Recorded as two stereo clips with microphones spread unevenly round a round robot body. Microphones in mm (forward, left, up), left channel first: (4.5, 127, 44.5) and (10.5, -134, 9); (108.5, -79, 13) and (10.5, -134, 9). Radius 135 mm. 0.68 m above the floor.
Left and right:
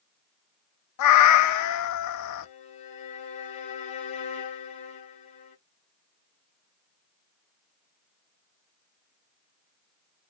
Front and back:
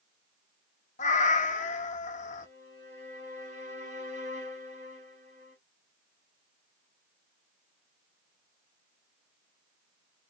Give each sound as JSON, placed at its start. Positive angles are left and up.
{"t": 1.0, "sound": "a cat meowing", "azimuth_deg": 65, "distance_m": 0.6}
{"t": 2.4, "sound": "a violin", "azimuth_deg": 160, "distance_m": 2.5}